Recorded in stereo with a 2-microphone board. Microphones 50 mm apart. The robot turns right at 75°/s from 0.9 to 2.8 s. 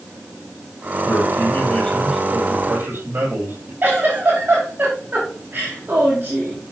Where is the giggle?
35° right (ahead or behind), 6 m.